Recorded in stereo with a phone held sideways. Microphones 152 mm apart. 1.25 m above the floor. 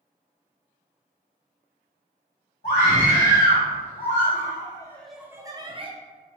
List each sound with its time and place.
2.6 s a scream: 80° left, 1.7 m; by 5.9 s 40° right (ahead or behind), 0.9 m